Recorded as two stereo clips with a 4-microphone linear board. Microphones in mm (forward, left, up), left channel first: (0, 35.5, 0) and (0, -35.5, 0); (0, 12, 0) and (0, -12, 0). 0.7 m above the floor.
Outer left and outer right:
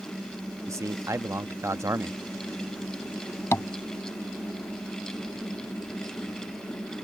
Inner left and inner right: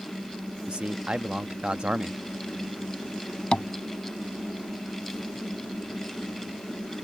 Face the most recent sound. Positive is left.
turn(degrees=35)  # may be behind; listen again after turning